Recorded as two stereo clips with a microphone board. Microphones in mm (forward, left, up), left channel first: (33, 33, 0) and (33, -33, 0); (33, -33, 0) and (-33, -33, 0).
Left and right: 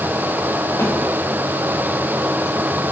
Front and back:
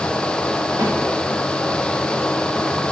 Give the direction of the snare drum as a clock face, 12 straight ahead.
7 o'clock.